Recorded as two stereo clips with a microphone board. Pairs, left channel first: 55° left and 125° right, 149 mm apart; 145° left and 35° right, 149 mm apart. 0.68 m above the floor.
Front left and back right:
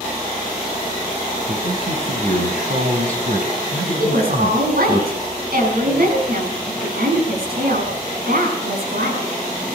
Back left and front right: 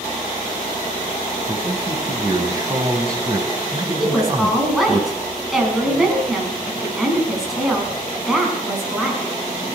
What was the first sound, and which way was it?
A man speaking, 100° right.